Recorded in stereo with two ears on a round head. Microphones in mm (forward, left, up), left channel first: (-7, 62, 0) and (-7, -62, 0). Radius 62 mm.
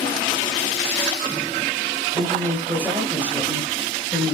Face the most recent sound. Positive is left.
turn(degrees=0)  # may be behind; listen again after turning